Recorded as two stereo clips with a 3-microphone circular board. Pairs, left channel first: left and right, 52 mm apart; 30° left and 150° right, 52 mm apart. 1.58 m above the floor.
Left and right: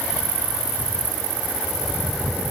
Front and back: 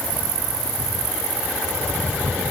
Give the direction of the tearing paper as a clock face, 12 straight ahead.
No tearing paper in this recording.